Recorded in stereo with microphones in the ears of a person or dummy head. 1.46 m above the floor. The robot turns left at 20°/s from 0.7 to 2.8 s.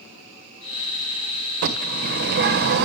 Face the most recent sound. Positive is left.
turn(degrees=-55)  # may be behind; listen again after turning